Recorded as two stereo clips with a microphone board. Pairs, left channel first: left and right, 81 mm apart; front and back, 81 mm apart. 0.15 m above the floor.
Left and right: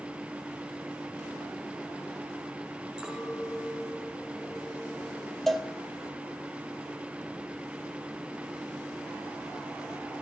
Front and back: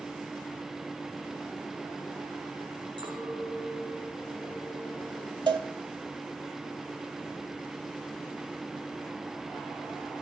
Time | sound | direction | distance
3.0 | a clink | 175° right | 5 m
5.5 | a cowbell | 175° left | 1.6 m